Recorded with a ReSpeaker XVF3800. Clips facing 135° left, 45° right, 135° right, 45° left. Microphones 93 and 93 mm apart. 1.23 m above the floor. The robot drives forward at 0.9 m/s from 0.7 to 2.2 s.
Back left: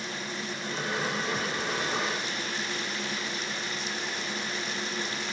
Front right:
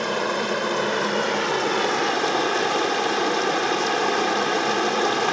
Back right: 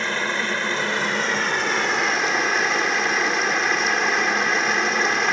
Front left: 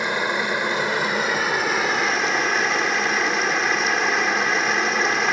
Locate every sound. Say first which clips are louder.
0.0 s running water: front right 13 dB, front left 2 dB; 30° right; by 5.3 s 45° right